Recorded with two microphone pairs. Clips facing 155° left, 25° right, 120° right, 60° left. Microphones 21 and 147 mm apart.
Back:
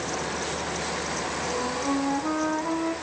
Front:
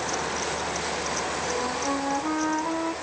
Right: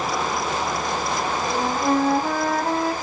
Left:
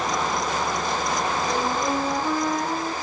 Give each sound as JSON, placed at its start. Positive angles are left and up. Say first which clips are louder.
{"t": 1.4, "sound": "a flute", "louder": "back 2 dB, right 2 dB", "azimuth_deg": -110, "distance_m": 2.5}